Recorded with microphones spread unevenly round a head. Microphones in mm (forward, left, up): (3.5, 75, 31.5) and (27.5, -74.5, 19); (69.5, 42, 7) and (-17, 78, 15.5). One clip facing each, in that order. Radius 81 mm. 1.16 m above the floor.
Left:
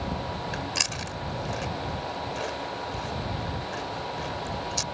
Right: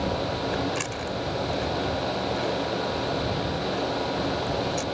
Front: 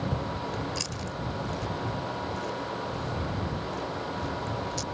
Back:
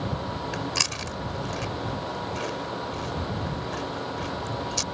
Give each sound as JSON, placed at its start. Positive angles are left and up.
{"t": 0.5, "sound": "chewing", "azimuth_deg": 150}